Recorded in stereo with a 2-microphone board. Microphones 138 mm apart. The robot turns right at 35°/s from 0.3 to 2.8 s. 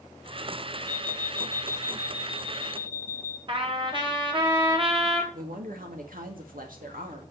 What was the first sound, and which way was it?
An alarm clock, 95° right.